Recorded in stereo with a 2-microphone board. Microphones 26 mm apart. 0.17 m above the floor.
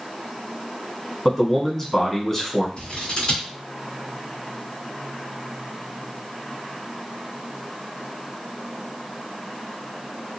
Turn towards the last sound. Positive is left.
turn(degrees=40)  # may be behind; listen again after turning